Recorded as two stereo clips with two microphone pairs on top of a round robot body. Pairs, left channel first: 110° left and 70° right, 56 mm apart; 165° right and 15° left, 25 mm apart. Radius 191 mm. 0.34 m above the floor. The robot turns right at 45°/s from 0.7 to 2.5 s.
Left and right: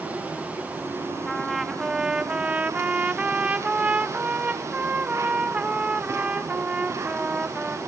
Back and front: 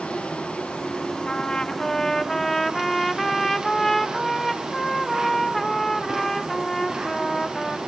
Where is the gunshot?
I don't hear a gunshot.